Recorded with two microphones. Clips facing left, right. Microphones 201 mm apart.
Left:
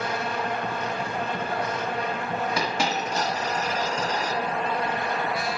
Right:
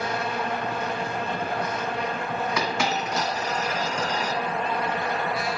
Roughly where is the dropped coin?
Left.